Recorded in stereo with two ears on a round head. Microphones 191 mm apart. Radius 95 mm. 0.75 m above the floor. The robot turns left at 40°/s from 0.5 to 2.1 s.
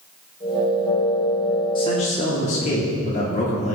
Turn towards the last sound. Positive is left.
turn(degrees=35)  # may be behind; listen again after turning